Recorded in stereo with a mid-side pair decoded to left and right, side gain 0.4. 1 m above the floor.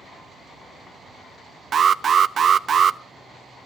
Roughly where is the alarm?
Ahead right.